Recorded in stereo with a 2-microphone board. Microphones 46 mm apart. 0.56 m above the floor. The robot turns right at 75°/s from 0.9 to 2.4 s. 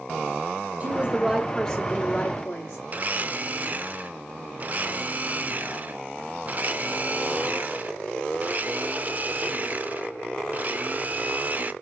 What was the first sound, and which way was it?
A woman speaking, 60° right.